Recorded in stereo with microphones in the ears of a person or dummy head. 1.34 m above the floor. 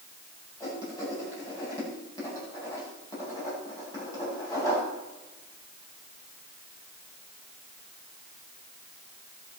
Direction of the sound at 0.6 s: 25° left (ahead or behind).